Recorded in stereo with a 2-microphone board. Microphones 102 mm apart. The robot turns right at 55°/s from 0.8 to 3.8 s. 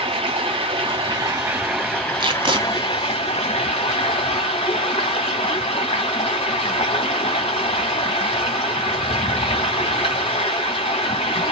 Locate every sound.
0.0 s running water: 55° right, 2.5 m; by 11.5 s 110° left, 2.5 m
2.2 s tape being pulled: 50° right (ahead or behind), 0.6 m; by 2.6 s 55° right (ahead or behind), 0.6 m